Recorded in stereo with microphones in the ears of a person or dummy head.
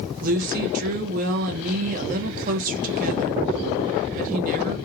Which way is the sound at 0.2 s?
45° right (ahead or behind).